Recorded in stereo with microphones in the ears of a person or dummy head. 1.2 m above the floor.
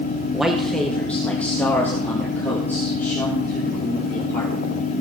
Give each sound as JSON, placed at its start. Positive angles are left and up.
{"t": 0.3, "sound": "a man speaking", "side_deg": 5, "distance_m": 0.9}